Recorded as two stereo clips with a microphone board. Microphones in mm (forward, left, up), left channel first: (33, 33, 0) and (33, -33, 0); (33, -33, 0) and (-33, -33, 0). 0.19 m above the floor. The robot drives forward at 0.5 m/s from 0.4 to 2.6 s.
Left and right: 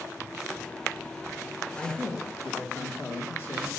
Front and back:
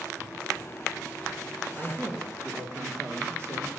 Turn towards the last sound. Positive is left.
turn(degrees=140)